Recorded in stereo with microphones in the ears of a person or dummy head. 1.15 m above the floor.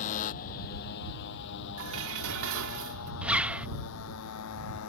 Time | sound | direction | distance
0.0 | a motorcycle | 45° left (ahead or behind) | ?
1.8 | dishes clattering | 80° right | ?
3.2 | a zipper | 5° right (ahead or behind) | ?